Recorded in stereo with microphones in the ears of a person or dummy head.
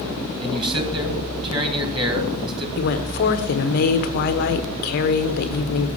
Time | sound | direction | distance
0.4 | a man speaking | 30° right (ahead or behind) | 2 m
2.8 | a woman speaking | 55° left (ahead or behind) | 0.9 m